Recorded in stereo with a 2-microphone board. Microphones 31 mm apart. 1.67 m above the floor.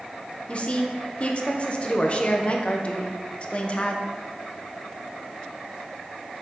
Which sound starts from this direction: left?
A woman speaking, at 0.5 s.